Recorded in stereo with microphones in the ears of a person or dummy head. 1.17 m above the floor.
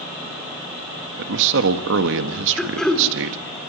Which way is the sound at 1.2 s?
65° right (ahead or behind).